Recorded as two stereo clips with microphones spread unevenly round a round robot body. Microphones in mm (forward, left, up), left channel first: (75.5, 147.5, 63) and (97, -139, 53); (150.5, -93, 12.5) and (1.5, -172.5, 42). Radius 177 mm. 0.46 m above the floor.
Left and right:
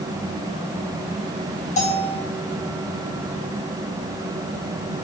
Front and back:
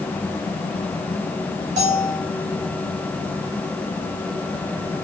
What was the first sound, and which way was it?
A bell, 155° left.